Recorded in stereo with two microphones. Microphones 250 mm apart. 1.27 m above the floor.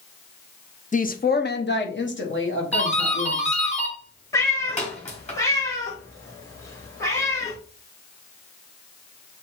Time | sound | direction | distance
0.9 | a woman speaking | 30° left (ahead or behind) | 0.6 m
2.7 | a doorbell | 25° left (ahead or behind) | 2.5 m
4.3 | a cat meowing | 10° left (ahead or behind) | 1.6 m